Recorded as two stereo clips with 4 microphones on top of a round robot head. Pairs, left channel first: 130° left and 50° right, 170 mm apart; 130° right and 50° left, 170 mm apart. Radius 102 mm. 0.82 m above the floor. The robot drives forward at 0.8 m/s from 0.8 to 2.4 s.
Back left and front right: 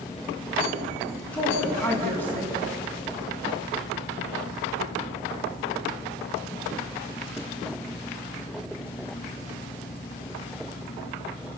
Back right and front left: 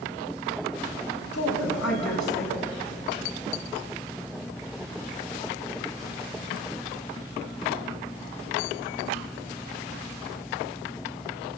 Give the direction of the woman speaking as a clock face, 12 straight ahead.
5 o'clock.